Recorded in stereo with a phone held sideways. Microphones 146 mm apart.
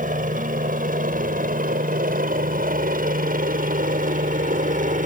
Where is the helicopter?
70° right (ahead or behind); by 5.1 s 65° right (ahead or behind).